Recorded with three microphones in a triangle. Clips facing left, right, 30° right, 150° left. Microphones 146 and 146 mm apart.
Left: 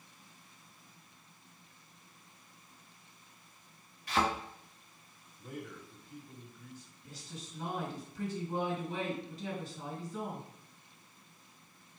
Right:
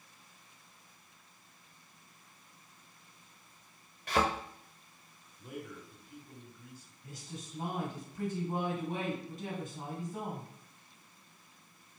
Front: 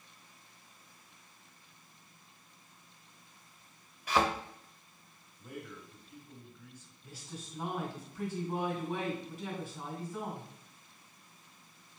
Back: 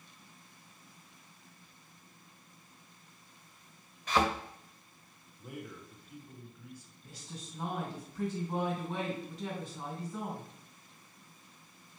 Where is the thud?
110° right, 1.9 m.